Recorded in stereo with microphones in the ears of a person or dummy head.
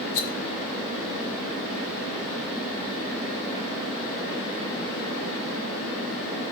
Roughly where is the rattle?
Left.